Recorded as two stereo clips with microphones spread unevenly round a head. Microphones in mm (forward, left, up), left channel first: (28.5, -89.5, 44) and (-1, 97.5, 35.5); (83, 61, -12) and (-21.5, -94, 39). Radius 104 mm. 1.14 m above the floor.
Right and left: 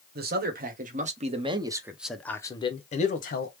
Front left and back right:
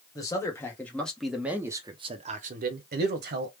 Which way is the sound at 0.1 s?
115° left.